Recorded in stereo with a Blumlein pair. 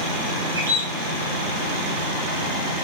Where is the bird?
65° right, 1.5 m.